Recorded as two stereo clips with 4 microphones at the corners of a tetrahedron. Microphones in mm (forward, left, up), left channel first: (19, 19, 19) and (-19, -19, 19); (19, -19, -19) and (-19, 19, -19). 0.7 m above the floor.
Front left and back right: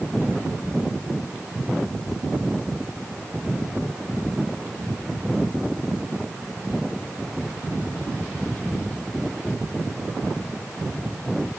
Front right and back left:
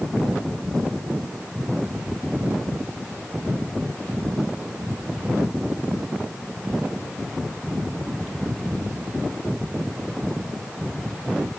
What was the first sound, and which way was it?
Only background noise.